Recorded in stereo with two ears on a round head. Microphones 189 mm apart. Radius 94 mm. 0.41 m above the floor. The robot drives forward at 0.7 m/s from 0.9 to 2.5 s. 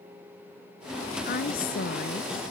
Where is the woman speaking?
45° left (ahead or behind); by 2.4 s 50° left (ahead or behind).